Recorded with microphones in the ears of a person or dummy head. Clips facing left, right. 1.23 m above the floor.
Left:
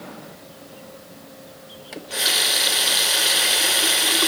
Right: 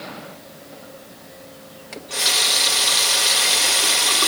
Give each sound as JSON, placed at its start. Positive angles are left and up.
{"t": 1.9, "sound": "a running tap", "side_deg": 5, "distance_m": 0.5}